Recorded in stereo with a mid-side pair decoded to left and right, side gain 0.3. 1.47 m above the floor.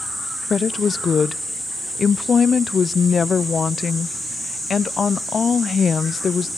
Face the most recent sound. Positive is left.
turn(degrees=60)